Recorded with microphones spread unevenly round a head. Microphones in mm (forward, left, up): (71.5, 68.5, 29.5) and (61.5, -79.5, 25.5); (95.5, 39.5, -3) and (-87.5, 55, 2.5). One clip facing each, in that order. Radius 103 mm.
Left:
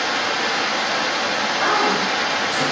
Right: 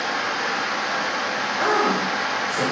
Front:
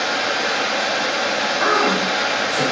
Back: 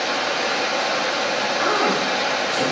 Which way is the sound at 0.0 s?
85° left.